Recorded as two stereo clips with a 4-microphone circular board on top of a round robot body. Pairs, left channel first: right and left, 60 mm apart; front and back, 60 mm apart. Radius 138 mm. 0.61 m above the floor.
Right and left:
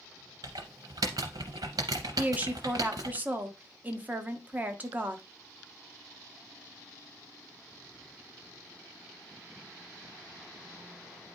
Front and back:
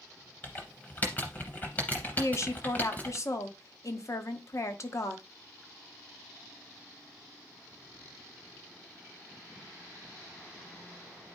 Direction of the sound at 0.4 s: 65° left.